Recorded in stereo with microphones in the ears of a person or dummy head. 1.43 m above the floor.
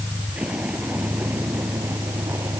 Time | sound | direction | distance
0.0 | a vehicle | 5° right (ahead or behind) | ?